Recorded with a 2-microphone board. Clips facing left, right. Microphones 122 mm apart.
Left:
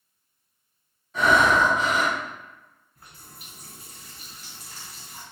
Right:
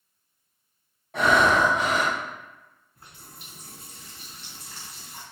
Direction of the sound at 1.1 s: 70° right (ahead or behind).